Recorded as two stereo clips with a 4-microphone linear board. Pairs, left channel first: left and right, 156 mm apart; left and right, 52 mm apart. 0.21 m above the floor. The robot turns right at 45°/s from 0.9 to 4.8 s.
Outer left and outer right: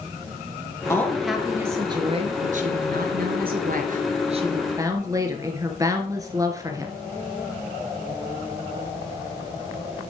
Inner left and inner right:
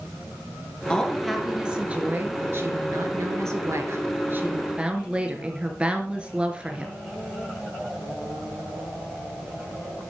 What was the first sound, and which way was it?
A woman speaking, 165° left.